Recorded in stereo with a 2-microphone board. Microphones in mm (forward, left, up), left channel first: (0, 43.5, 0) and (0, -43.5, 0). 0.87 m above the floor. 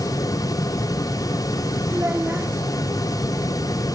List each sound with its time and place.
1.9 s a child speaking: 20° right (ahead or behind), 2 m